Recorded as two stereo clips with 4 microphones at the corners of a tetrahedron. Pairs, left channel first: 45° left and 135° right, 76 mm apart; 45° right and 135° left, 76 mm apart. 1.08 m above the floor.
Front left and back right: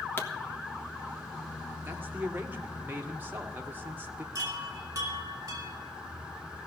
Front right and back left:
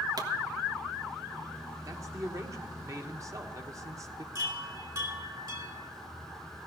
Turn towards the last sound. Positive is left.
turn(degrees=180)